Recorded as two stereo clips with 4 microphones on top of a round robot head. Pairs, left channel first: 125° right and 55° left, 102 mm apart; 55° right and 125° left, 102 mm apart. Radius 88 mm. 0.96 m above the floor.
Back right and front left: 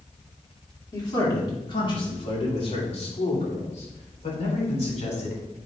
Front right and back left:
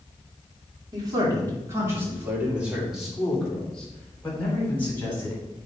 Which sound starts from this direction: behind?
A man speaking, at 0.9 s.